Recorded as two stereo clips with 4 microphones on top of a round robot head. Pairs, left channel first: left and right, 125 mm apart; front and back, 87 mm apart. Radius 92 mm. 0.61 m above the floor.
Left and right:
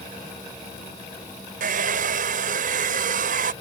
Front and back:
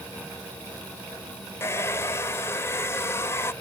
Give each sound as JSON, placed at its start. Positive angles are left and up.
{"t": 1.6, "sound": "a hair dryer", "azimuth_deg": -70}